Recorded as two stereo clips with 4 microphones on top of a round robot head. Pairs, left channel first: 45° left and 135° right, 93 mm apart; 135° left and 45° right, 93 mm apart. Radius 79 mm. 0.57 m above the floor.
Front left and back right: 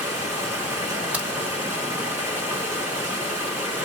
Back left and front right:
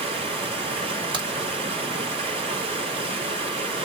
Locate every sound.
0.0 s running water: 70° right, 2.0 m
1.1 s a crack: 60° right, 2.0 m